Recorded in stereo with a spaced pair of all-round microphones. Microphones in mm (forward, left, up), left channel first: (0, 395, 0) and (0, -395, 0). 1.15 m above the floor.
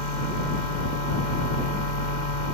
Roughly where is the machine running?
Left.